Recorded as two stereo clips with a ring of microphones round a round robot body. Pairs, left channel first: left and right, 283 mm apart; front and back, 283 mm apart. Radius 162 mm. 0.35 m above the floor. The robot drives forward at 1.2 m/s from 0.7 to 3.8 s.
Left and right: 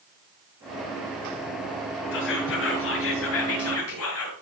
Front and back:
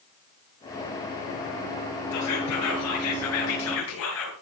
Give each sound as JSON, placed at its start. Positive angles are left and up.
{"t": 2.1, "sound": "whispering", "azimuth_deg": 35, "distance_m": 8.0}